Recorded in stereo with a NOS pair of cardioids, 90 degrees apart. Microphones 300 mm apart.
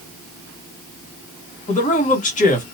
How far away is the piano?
No piano in this recording.